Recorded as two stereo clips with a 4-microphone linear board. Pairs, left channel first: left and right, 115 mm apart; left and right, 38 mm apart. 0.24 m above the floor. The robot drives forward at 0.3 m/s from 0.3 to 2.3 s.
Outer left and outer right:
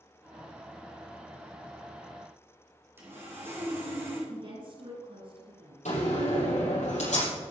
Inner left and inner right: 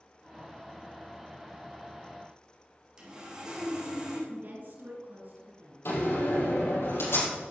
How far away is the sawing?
About 4.5 m.